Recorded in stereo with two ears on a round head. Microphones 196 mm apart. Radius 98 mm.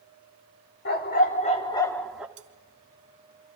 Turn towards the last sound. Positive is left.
turn(degrees=-35)  # may be behind; listen again after turning